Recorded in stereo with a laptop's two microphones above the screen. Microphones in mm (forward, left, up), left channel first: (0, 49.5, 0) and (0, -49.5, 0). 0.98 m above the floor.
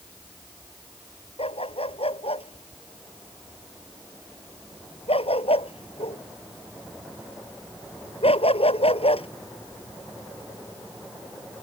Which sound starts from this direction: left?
A dog barking, at 1.4 s.